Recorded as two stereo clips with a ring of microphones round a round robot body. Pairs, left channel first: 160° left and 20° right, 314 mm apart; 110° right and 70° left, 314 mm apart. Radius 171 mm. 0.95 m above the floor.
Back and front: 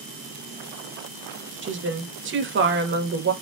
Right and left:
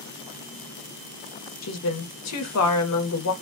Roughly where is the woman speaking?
Right.